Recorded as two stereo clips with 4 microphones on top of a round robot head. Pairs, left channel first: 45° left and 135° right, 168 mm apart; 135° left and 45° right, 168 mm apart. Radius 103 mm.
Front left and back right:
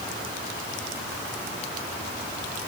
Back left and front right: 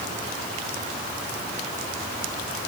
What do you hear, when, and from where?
Only background noise.